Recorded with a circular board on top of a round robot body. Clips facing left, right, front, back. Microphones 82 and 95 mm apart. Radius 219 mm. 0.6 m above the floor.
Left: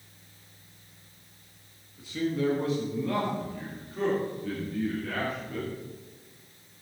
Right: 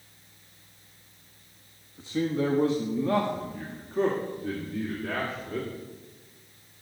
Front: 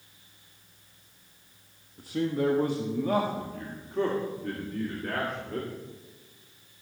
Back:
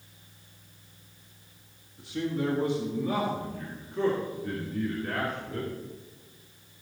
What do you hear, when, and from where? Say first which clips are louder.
2.0 s a man speaking: right 1 dB, front 3 dB; 35° right, 1.5 m